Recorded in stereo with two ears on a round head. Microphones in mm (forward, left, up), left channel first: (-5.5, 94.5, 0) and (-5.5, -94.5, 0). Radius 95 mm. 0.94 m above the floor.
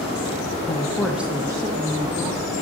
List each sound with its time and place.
0.7 s a woman speaking: 20° left (ahead or behind), 0.5 m; by 2.5 s 35° right (ahead or behind), 1.2 m